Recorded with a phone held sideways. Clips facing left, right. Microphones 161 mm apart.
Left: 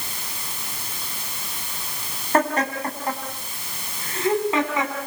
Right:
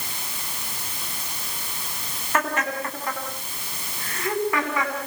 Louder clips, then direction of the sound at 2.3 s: Left 4 dB; 35° left (ahead or behind).